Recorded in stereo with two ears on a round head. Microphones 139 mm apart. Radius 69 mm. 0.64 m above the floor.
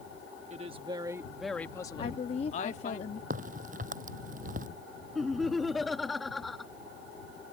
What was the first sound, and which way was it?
A woman speaking, 40° right (ahead or behind).